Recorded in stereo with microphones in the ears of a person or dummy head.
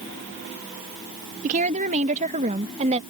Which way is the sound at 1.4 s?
40° right (ahead or behind).